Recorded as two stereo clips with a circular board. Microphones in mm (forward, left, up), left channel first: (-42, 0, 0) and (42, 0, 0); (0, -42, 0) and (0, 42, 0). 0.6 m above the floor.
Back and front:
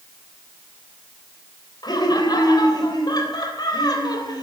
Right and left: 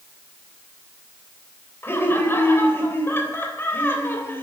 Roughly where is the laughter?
Behind right.